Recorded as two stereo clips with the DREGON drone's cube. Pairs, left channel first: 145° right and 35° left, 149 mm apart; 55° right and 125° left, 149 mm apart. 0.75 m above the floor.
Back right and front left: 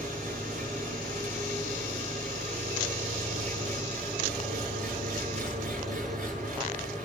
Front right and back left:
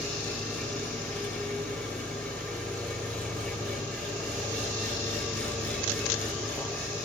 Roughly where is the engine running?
Ahead left.